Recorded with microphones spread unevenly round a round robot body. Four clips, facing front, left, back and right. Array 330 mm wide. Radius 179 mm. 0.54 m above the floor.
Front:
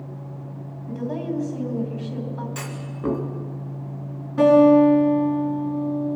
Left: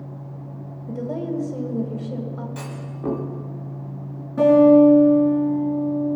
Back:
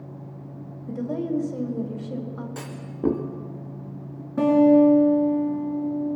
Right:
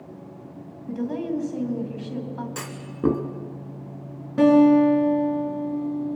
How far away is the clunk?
About 1.5 m.